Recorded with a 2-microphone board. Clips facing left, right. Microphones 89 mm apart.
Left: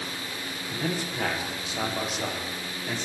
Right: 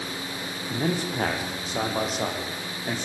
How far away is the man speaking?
About 4.5 m.